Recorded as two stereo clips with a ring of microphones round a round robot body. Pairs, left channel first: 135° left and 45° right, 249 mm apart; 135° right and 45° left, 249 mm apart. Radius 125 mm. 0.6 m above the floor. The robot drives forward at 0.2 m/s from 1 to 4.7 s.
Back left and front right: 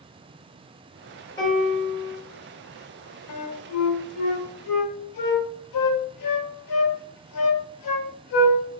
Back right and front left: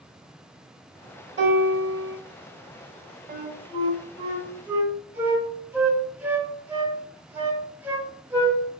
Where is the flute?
105° left, 0.6 m; by 8.6 s 130° left, 0.7 m.